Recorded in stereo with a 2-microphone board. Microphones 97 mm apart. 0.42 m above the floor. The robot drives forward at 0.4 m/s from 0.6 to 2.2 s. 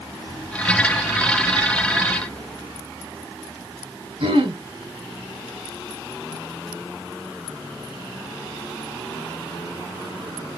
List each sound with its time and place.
4.2 s throat clearing: 70° right (ahead or behind), 0.9 m